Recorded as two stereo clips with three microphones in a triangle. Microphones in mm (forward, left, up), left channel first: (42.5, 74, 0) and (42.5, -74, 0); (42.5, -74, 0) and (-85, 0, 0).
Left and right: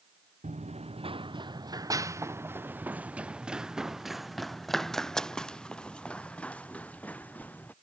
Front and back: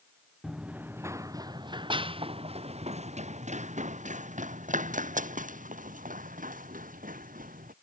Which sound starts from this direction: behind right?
Running footsteps, at 0.4 s.